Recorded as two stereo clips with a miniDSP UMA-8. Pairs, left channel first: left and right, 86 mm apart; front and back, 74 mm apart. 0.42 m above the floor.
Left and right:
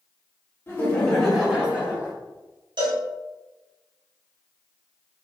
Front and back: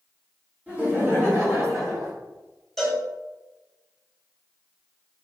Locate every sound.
0.7 s laughter: 125° left, 1.6 m; by 2.1 s 150° right, 2 m
2.8 s a cowbell: 85° right, 1.3 m